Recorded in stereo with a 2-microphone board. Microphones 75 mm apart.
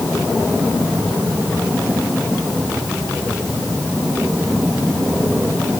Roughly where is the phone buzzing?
No phone buzzing in this recording.